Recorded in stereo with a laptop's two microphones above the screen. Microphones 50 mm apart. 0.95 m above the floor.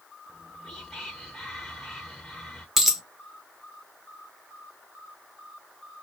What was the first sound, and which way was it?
Whispering, 10° left (ahead or behind).